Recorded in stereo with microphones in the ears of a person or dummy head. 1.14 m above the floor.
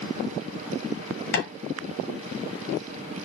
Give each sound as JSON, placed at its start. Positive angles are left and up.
{"t": 1.3, "sound": "tapping", "side_deg": 55, "distance_m": 0.5}